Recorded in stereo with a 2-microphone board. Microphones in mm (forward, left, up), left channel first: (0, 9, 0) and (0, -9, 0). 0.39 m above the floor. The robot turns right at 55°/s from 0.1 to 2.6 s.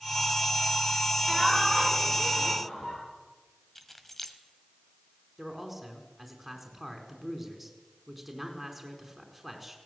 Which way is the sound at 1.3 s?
15° right.